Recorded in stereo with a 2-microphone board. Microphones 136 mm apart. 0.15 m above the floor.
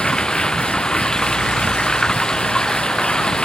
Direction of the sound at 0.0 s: 5° left (ahead or behind).